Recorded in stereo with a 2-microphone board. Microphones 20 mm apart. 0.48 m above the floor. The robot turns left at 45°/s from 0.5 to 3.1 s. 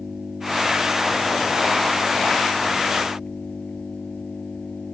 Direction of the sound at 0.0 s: 140° right.